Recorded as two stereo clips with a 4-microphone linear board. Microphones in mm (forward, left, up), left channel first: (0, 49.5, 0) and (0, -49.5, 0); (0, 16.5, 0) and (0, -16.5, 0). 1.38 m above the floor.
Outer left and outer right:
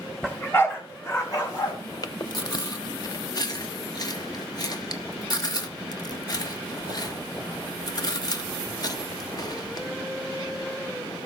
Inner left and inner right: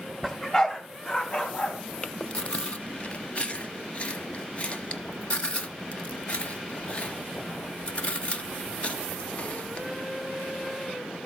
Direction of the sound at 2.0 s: 45° left (ahead or behind).